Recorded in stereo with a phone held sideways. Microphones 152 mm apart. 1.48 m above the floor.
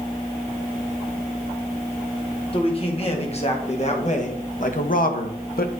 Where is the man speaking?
40° left (ahead or behind), 2.5 m; by 5.7 s 75° left (ahead or behind), 0.9 m.